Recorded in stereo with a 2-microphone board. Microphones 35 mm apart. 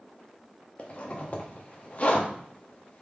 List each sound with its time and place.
0.8 s a zipper: 40° left (ahead or behind), 0.9 m